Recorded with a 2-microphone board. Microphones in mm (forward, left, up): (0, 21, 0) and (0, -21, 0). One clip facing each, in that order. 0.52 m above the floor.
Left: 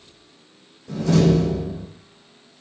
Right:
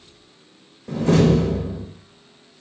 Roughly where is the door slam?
Right.